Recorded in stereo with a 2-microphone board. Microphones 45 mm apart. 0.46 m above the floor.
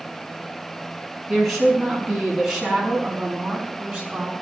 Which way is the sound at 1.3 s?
Centre (ahead or behind).